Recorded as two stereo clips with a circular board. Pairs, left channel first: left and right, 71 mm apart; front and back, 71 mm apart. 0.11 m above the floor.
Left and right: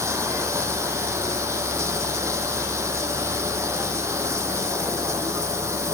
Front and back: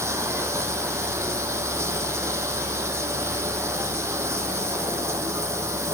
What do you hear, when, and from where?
0.0 s running water: 135° right, 1.1 m